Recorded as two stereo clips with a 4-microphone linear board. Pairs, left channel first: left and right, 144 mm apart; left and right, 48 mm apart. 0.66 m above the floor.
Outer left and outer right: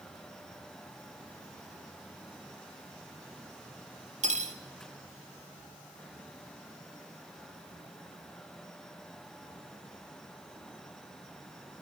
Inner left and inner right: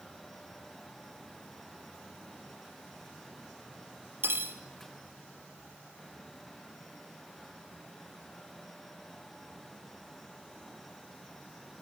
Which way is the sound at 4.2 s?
55° right (ahead or behind).